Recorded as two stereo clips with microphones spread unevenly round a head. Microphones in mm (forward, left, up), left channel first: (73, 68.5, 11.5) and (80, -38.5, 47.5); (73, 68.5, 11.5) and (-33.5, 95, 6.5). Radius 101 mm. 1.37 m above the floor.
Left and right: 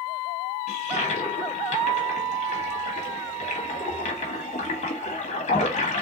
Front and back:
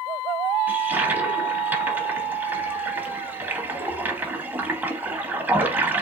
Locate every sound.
0.7 s a toilet flushing: 95° left, 1.2 m